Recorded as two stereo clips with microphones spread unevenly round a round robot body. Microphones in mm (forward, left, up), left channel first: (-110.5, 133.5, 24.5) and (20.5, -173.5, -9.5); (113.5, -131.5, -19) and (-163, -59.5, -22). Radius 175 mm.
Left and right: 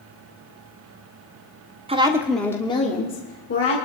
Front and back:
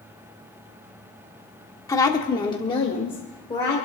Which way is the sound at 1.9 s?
75° right.